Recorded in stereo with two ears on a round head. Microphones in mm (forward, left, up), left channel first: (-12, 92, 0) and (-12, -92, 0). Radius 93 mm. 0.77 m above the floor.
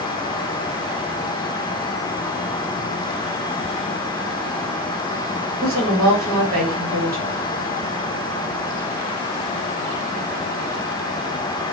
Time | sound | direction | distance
5.6 | a woman speaking | 45° right (ahead or behind) | 1.4 m